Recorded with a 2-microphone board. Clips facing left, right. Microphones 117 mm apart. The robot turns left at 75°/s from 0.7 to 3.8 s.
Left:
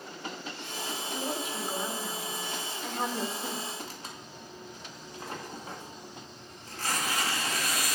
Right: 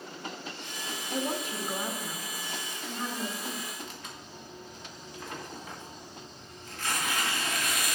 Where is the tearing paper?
35° left (ahead or behind), 1.7 m.